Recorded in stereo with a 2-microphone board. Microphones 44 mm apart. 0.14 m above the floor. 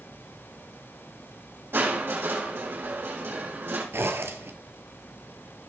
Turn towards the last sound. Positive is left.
turn(degrees=-65)  # may be behind; listen again after turning